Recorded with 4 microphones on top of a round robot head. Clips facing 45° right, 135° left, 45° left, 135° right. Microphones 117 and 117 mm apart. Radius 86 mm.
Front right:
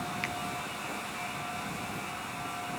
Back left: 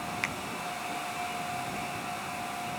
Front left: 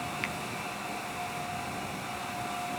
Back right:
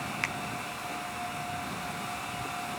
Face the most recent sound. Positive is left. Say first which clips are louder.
# even, even
turn(degrees=175)